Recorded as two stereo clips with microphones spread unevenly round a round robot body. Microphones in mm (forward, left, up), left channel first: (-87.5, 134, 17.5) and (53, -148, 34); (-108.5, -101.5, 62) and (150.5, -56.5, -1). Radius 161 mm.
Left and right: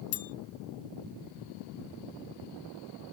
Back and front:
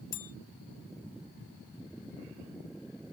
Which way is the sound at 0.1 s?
165° left.